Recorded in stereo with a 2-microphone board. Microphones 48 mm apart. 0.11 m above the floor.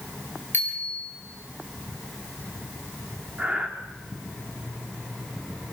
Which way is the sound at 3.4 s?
30° right (ahead or behind).